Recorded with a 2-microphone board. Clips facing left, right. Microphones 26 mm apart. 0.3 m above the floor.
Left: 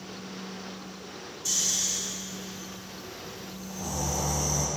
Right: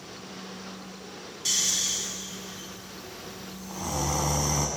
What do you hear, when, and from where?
1.4 s snoring: 80° right, 0.5 m